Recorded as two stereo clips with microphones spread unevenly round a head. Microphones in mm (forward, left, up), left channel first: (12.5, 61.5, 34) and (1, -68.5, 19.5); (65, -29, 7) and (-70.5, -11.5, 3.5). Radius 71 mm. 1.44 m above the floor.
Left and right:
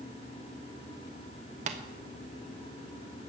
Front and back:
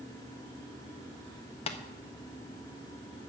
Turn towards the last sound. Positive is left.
turn(degrees=-55)